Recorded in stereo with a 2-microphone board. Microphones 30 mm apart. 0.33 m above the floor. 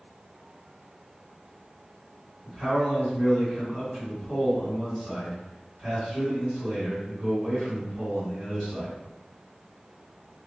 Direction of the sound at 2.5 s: 35° right (ahead or behind).